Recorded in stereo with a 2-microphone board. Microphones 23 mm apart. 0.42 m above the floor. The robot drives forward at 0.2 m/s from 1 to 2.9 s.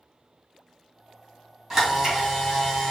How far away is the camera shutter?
About 2 m.